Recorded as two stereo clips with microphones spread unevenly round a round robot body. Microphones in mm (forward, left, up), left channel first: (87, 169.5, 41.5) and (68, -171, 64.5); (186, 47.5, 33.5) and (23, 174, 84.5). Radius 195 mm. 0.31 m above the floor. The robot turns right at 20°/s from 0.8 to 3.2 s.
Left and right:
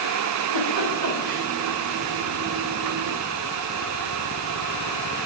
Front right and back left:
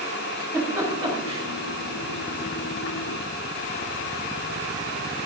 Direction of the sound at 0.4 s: 120° right.